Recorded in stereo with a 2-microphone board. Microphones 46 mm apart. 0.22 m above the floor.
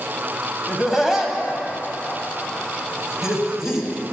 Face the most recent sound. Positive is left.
turn(degrees=-10)  # may be behind; listen again after turning